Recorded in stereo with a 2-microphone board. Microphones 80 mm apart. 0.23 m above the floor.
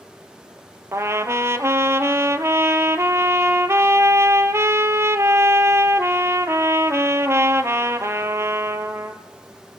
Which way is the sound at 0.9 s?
35° right (ahead or behind).